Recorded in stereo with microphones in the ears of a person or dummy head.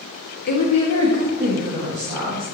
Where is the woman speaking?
55° left (ahead or behind), 0.9 m; by 2.5 s 25° right (ahead or behind), 1.9 m.